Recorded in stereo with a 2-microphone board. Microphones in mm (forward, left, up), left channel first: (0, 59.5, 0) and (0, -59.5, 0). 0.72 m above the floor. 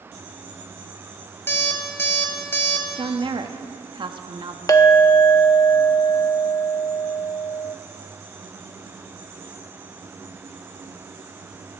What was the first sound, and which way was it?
An alarm clock, 20° left (ahead or behind).